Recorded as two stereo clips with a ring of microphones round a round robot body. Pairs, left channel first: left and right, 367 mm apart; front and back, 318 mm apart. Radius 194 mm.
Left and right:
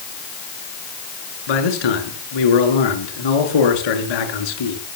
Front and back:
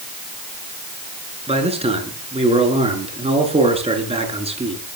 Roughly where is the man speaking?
Left.